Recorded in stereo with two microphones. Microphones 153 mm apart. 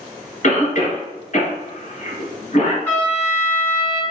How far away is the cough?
About 1.6 m.